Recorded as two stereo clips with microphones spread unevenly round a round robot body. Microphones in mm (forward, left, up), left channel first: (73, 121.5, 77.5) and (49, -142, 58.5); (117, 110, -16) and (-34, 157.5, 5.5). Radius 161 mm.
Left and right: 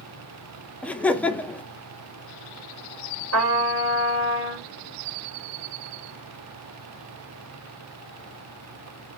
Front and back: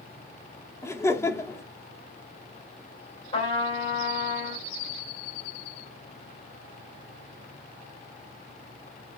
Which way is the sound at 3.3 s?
80° right.